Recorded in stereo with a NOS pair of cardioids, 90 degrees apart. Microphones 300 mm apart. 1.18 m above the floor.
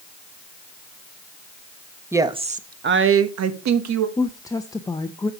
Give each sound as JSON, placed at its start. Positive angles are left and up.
{"t": 2.1, "sound": "a woman speaking", "azimuth_deg": -10, "distance_m": 1.2}
{"t": 4.2, "sound": "a woman speaking", "azimuth_deg": 10, "distance_m": 0.7}